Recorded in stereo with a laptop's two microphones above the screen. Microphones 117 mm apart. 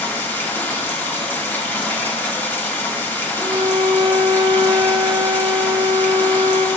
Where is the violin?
40° right (ahead or behind), 1.2 m.